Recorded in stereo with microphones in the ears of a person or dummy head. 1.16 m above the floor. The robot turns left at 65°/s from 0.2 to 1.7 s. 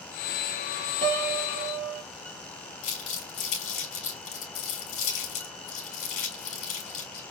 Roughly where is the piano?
Ahead right.